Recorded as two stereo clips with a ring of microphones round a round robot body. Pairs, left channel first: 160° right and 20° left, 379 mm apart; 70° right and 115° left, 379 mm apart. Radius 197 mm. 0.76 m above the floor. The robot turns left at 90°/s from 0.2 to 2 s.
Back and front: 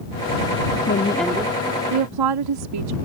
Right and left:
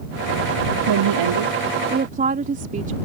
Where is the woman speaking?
145° left; by 3.0 s 45° left.